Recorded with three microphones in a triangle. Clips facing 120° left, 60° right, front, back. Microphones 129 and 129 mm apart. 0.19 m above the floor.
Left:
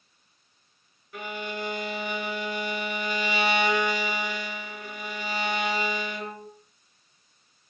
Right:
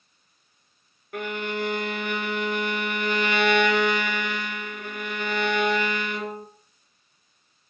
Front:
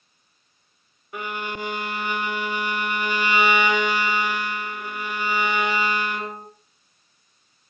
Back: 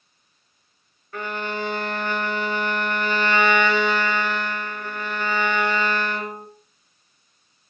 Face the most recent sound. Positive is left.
turn(degrees=-75)